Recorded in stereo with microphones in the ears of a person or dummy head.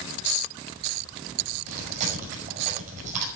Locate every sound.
1.7 s chewing: 40° right (ahead or behind), 6 m